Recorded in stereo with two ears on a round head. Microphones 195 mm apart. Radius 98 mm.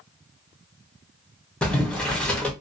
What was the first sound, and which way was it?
Boiling, 5° left (ahead or behind).